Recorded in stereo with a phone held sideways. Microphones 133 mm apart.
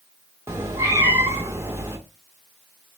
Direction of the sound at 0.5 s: 20° right (ahead or behind).